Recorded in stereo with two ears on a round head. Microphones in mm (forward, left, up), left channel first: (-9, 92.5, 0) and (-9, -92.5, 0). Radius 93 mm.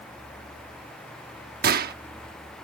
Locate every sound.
1.6 s a gunshot: 45° right (ahead or behind)